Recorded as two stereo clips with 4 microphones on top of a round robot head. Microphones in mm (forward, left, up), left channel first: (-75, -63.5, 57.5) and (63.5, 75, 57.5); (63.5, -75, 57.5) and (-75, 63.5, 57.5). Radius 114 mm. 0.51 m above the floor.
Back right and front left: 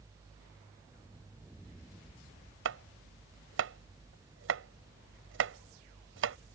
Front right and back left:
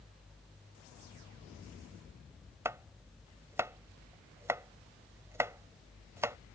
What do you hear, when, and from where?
2.6 s chopping: 60° left